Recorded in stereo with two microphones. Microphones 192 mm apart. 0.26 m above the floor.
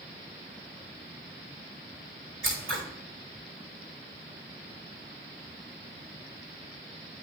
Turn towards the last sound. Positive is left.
turn(degrees=-80)